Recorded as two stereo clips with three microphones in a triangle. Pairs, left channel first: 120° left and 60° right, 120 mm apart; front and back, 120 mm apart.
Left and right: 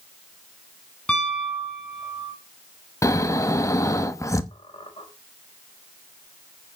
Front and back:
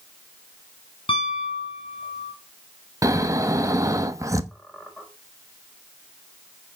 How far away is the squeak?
About 5 m.